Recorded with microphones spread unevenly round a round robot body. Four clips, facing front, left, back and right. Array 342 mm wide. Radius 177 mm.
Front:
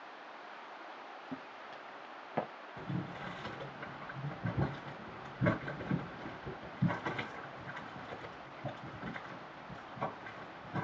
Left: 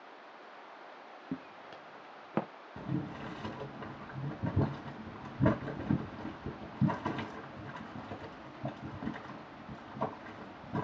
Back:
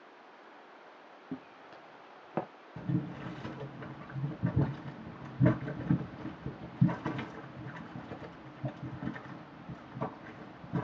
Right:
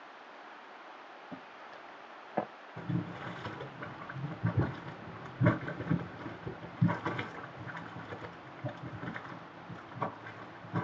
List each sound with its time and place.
1.3 s footsteps: 105° left, 3 m; by 2.5 s 110° left, 3.5 m
2.8 s boiling: 145° left, 3.5 m